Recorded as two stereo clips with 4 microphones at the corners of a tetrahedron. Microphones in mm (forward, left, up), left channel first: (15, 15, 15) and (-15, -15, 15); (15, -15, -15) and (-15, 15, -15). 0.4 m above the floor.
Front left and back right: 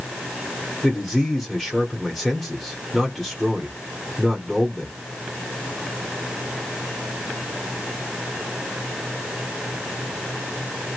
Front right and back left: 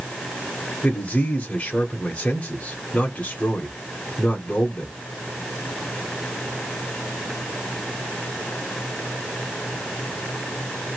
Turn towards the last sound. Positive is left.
turn(degrees=-40)